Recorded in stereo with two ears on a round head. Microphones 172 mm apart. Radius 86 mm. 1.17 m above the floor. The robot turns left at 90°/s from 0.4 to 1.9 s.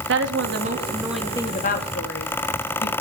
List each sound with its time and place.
0.1 s a woman speaking: 110° right, 2.5 m; by 2.9 s 115° left, 2.5 m